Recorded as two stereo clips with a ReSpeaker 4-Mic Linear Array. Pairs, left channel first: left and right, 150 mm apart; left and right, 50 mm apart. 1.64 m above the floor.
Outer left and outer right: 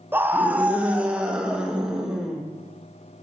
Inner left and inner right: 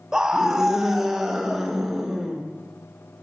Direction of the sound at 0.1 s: 15° right (ahead or behind).